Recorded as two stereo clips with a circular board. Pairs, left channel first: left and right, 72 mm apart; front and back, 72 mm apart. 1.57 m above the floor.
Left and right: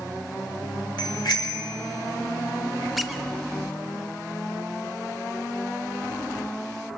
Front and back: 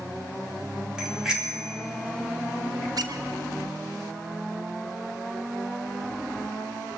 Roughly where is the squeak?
Behind.